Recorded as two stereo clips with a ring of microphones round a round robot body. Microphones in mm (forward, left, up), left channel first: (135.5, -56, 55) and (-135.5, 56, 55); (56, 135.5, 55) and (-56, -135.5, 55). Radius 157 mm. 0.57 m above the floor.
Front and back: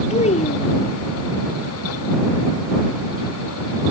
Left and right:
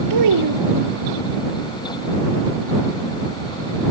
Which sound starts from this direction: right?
A child speaking, at 0.1 s.